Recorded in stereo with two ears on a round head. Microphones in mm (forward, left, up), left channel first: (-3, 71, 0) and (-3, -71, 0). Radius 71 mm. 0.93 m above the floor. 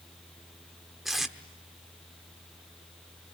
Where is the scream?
I don't hear a scream.